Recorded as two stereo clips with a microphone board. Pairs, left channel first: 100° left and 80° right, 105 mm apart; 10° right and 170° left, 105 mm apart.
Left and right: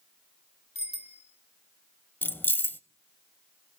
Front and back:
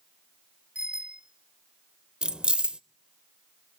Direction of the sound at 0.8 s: 90° left.